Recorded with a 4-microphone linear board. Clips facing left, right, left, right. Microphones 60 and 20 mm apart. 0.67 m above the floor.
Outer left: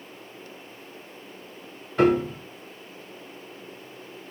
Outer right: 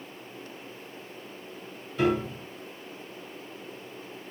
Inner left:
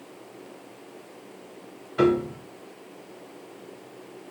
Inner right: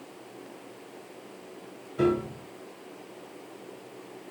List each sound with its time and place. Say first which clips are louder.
2.0 s a piano: outer left 5 dB, inner left 4 dB; 60° left (ahead or behind), 1.3 m